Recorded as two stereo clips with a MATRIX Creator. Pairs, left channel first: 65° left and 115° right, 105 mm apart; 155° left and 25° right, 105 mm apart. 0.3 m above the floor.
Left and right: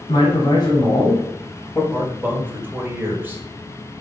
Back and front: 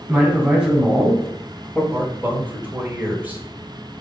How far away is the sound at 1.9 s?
About 1.0 m.